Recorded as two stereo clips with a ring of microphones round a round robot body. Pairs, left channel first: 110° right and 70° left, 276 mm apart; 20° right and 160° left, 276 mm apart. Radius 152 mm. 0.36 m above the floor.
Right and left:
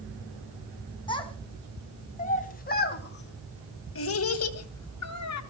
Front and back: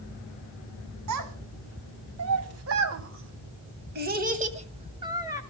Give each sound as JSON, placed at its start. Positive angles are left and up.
{"t": 1.1, "sound": "a child speaking", "azimuth_deg": 175, "distance_m": 3.0}